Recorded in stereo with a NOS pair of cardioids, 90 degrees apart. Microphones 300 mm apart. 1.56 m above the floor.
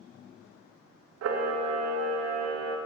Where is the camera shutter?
55° right, 0.9 m.